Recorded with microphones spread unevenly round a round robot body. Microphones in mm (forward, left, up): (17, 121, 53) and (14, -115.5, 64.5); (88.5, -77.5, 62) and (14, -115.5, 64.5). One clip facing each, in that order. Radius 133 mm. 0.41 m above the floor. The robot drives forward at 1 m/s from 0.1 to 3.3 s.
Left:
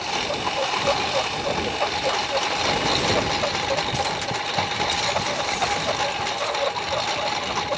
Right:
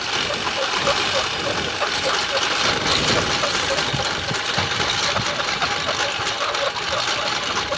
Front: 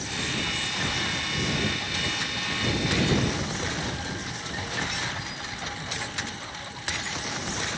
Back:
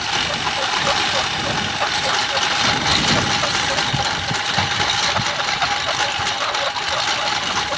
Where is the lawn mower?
165° right.